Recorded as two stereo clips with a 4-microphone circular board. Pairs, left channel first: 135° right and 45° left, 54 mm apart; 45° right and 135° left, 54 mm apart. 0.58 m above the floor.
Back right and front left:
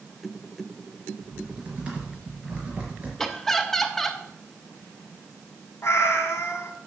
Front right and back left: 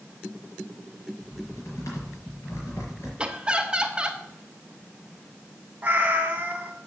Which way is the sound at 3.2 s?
155° left.